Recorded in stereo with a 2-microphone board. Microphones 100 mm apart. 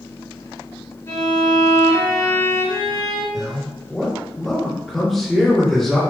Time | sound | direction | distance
1.1 | a violin | 30° left (ahead or behind) | 1.7 m
3.3 | a man speaking | 5° left (ahead or behind) | 1.8 m